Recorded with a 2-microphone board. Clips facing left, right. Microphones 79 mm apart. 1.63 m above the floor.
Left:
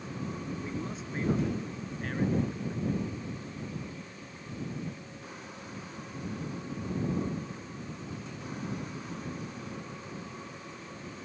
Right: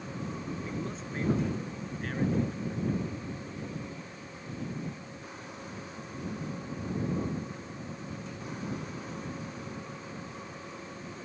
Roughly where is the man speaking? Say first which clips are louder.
Even; centre.